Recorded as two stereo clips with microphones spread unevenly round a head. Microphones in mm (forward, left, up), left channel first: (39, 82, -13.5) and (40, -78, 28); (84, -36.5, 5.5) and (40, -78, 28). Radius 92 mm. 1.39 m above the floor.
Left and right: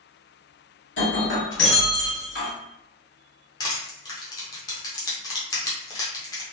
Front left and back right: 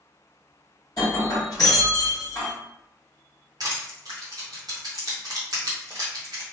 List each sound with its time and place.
1.0 s breaking glass: 110° left, 1.6 m
3.6 s crushing: 165° left, 0.6 m